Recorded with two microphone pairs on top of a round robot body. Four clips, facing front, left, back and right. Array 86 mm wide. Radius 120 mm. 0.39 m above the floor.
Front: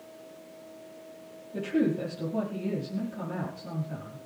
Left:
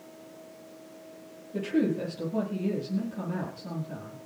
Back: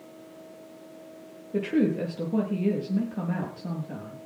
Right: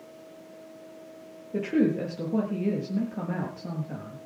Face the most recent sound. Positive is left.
turn(degrees=-135)